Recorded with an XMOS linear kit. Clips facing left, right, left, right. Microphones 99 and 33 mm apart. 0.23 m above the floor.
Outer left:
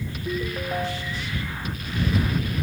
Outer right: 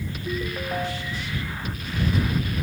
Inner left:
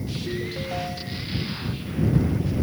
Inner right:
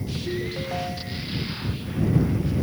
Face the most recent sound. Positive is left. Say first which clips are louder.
# outer left 1 dB, inner right 2 dB
turn(degrees=0)  # may be behind; listen again after turning